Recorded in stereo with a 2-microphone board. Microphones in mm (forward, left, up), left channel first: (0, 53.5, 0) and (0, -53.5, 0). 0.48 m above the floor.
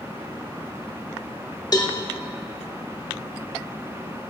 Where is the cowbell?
40° left (ahead or behind), 0.6 m.